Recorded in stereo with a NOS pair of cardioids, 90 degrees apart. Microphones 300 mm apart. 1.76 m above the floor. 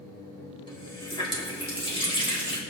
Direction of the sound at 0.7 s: 15° left.